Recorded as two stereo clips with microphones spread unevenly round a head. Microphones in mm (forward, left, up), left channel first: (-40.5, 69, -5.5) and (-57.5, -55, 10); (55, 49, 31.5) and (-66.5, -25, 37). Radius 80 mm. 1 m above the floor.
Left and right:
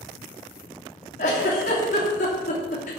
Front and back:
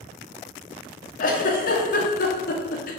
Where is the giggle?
50° left, 2.5 m.